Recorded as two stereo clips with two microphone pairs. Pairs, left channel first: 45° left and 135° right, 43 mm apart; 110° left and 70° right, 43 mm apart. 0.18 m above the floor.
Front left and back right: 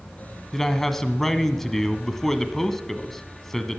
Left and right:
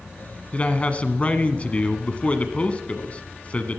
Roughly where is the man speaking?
Behind left.